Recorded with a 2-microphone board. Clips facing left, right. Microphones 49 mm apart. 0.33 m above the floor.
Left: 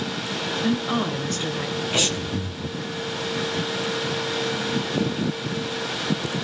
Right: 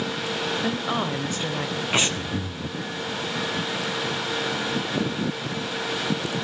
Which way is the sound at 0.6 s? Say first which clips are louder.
Left 6 dB; 15° right (ahead or behind).